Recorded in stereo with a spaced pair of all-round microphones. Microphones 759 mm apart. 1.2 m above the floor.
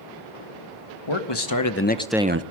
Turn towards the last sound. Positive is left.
turn(degrees=-25)  # may be behind; listen again after turning